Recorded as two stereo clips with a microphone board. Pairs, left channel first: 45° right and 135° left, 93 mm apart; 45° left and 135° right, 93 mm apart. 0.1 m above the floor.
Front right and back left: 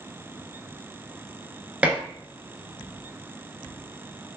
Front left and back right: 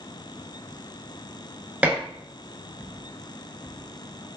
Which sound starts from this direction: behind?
Dishes clattering, at 1.8 s.